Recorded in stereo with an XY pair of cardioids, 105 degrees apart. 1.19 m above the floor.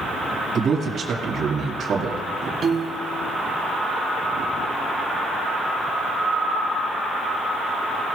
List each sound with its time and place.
0.6 s a man speaking: 50° right, 2 m
2.6 s a piano: 45° right, 1.7 m